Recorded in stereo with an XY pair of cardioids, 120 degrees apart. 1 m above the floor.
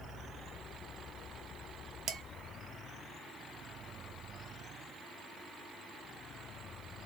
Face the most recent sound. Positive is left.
turn(degrees=-65)